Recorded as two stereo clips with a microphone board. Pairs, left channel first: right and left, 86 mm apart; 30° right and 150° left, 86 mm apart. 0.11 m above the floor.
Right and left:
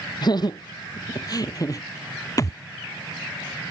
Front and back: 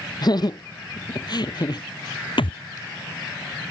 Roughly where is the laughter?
Ahead right.